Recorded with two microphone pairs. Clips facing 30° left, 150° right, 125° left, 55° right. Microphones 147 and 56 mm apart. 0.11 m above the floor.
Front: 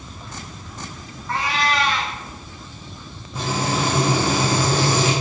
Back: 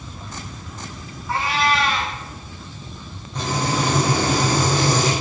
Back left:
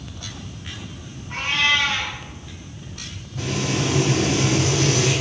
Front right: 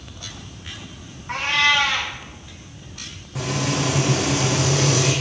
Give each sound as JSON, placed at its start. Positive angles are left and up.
{"t": 1.3, "sound": "a cat meowing", "azimuth_deg": -65, "distance_m": 4.0}
{"t": 3.4, "sound": "frying", "azimuth_deg": -55, "distance_m": 5.5}